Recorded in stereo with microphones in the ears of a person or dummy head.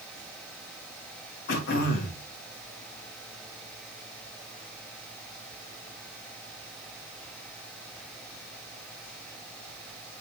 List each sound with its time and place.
1.5 s throat clearing: 55° left (ahead or behind), 1.9 m